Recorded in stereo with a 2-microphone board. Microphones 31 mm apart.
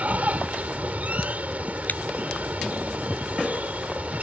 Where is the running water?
55° right (ahead or behind).